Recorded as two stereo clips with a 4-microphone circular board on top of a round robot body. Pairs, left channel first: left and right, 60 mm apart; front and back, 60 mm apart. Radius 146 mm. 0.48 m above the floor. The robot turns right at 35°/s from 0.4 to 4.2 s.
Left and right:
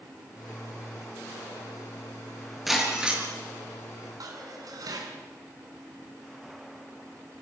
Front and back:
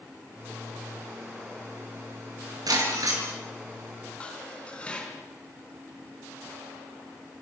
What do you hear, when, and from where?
2.7 s breaking glass: straight behind, 6 m; by 3.2 s 160° right, 6 m
4.2 s dishes clattering: 70° right, 4 m